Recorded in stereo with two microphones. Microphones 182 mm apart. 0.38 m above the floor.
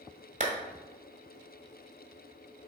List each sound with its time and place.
0.4 s a clap: 45° right (ahead or behind), 1.5 m